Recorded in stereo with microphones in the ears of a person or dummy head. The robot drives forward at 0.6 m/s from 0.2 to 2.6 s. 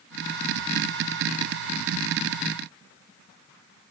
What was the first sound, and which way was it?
Only background noise.